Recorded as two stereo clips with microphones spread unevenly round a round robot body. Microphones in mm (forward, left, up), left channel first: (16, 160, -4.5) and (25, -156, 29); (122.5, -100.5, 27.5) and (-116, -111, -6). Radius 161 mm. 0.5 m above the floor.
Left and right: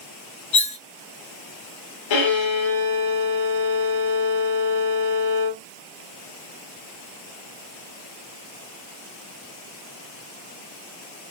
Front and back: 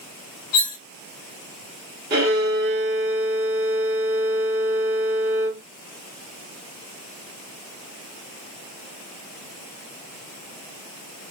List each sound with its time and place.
0.5 s cutlery clinking: 25° left, 0.9 m
2.1 s a violin: 120° left, 1.8 m